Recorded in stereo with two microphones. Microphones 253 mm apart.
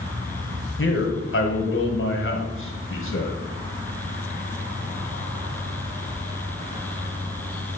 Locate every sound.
0.8 s a man speaking: 50° left (ahead or behind), 1.6 m